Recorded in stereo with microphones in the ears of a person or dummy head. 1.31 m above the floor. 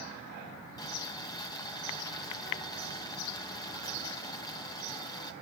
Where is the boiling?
25° left (ahead or behind), 1.2 m.